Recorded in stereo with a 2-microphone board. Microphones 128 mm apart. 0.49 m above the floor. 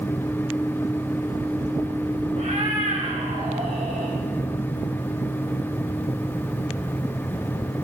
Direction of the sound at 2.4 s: 65° right (ahead or behind).